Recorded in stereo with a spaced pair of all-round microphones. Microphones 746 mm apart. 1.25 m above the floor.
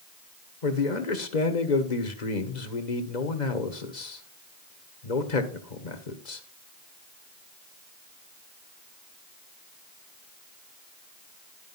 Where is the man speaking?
70° left (ahead or behind), 1.5 m.